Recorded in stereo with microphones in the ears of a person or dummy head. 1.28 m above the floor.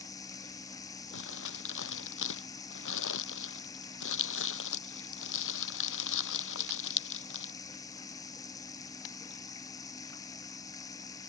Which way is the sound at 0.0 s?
25° left (ahead or behind).